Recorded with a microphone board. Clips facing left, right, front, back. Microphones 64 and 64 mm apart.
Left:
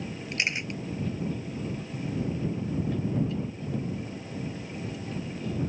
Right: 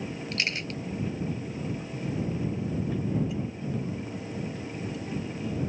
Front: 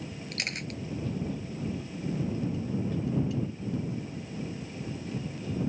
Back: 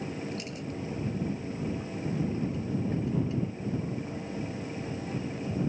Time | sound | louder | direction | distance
0.3 | a camera shutter | left 2 dB, even | 20° left | ?